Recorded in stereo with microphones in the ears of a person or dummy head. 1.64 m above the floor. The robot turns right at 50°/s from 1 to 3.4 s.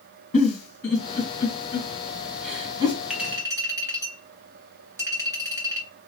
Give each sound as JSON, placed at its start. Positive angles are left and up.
{"t": 0.3, "sound": "a giggle", "side_deg": 55, "distance_m": 3.0}
{"t": 3.1, "sound": "a clink", "side_deg": 0, "distance_m": 1.5}